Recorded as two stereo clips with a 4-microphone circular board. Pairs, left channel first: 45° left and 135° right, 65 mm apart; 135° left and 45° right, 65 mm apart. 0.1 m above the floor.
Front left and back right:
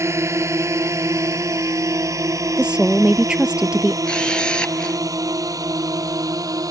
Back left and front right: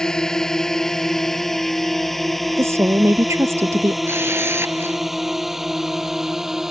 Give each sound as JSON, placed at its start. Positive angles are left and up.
{"t": 0.0, "sound": "a drone", "azimuth_deg": -150}
{"t": 2.6, "sound": "a woman speaking", "azimuth_deg": -65}
{"t": 4.0, "sound": "a camera shutter", "azimuth_deg": -25}